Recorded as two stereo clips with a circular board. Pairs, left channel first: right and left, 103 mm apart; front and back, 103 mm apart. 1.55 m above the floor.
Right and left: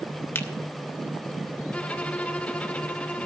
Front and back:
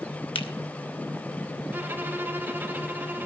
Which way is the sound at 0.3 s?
25° right.